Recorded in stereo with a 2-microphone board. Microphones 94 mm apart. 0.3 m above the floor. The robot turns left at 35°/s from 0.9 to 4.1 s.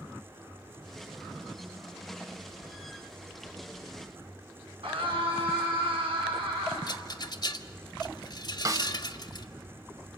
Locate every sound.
4.8 s a scream: 70° right (ahead or behind), 4.5 m
6.9 s a rattle: 45° left (ahead or behind), 0.9 m
8.7 s a snare drum: 40° right (ahead or behind), 0.9 m